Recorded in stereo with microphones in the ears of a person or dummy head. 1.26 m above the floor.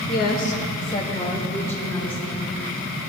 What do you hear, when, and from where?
0.1 s a woman speaking: 50° left (ahead or behind), 0.7 m; by 2.5 s 5° left (ahead or behind), 2.5 m